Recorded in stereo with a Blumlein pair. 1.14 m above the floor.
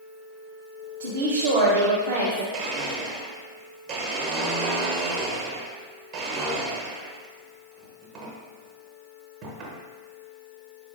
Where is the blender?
35° right, 0.8 m.